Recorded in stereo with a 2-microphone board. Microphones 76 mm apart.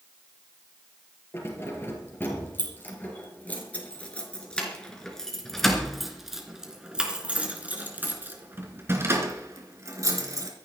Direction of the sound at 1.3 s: 30° left (ahead or behind).